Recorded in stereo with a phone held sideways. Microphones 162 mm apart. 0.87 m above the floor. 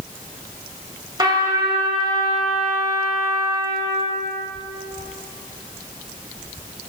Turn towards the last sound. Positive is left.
turn(degrees=-30)  # may be behind; listen again after turning